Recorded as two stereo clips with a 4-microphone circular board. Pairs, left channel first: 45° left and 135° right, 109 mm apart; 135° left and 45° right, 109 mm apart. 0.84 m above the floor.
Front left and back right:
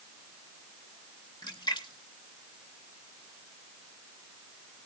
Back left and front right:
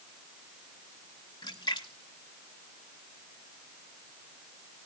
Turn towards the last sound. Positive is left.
turn(degrees=90)